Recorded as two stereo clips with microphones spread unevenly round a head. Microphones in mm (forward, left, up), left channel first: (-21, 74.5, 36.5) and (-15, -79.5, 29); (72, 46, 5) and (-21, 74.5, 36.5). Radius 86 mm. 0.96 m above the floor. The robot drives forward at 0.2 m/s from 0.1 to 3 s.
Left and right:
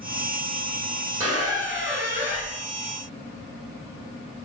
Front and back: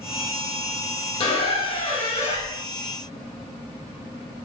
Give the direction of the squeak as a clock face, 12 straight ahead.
1 o'clock.